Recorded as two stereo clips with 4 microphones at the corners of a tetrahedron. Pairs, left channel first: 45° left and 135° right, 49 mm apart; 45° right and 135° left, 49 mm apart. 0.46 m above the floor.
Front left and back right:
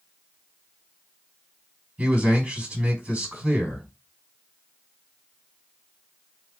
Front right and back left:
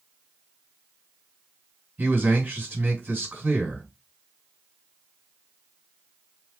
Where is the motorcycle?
No motorcycle in this recording.